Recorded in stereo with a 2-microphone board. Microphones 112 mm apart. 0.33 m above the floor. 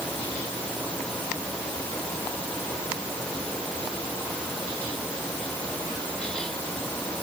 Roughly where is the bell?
No bell in this recording.